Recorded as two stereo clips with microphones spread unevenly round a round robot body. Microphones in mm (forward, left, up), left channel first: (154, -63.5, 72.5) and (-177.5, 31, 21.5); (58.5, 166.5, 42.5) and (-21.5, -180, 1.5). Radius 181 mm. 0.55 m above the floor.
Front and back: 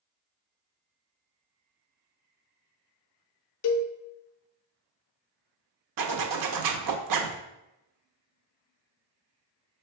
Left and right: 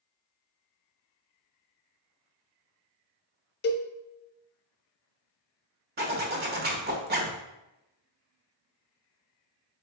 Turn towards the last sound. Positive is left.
turn(degrees=-165)